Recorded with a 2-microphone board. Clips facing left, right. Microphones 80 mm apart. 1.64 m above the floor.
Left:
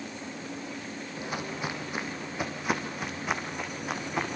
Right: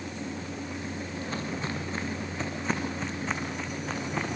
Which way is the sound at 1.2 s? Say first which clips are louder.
Left 1 dB; 15° left (ahead or behind).